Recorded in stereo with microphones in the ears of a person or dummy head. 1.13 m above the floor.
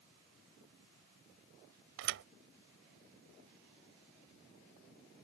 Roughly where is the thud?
Right.